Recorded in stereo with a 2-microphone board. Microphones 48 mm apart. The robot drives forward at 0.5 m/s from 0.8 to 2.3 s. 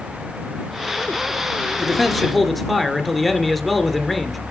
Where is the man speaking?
Centre (ahead or behind), 1.6 m.